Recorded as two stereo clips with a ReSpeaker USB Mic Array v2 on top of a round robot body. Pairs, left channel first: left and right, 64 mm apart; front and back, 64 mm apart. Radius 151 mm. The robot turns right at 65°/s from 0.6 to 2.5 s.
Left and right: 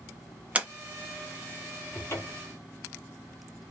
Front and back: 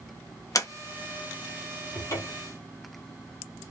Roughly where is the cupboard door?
Ahead left.